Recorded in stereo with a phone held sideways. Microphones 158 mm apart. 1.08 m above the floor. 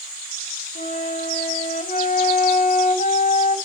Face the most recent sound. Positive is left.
turn(degrees=55)  # may be behind; listen again after turning